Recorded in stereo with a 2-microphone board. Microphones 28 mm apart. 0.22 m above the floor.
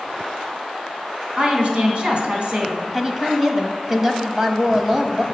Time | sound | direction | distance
1.4 | a woman speaking | 40° right (ahead or behind) | 2.5 m
2.9 | a woman speaking | 20° right (ahead or behind) | 1.0 m